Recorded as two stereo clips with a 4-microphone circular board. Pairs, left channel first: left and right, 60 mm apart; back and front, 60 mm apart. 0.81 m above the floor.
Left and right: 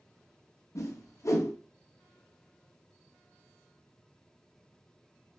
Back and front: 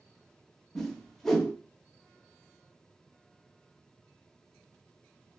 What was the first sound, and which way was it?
A whoosh, 95° left.